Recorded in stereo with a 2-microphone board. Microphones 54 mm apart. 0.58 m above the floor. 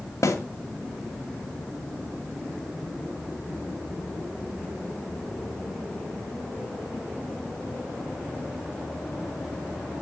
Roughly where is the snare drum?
Left.